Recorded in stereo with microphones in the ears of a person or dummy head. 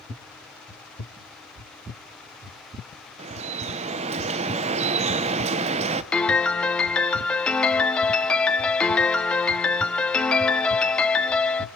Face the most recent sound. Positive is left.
turn(degrees=10)  # may be behind; listen again after turning